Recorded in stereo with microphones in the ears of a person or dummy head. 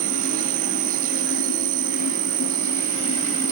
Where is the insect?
45° right (ahead or behind).